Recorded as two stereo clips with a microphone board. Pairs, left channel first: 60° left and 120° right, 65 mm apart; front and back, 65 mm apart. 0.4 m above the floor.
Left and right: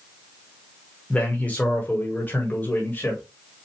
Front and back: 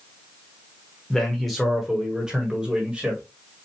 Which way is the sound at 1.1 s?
70° left.